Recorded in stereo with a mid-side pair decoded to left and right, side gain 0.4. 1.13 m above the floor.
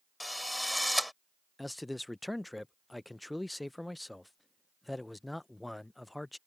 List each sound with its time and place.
0.2 s a drill: 5° left
1.6 s a man speaking: 10° left